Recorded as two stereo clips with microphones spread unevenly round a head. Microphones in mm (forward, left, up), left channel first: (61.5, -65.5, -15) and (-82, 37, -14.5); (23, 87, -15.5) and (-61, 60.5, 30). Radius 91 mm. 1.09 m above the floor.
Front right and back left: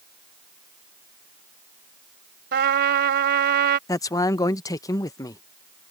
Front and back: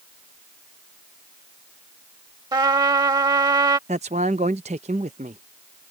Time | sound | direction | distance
2.5 | a trumpet | 170° left | ?
3.9 | a man speaking | 105° right | ?